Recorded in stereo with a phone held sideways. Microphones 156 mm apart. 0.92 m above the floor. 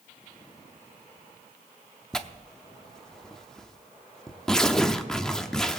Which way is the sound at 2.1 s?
5° left (ahead or behind).